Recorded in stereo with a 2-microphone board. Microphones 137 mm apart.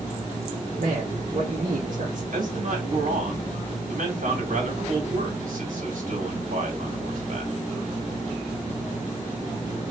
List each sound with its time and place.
0.8 s a man speaking: 65° right (ahead or behind), 1.2 m
2.3 s a man speaking: 85° right, 1.6 m